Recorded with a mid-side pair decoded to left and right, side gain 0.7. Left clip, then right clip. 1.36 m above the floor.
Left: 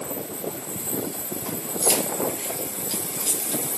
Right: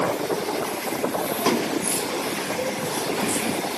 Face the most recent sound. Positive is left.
turn(degrees=65)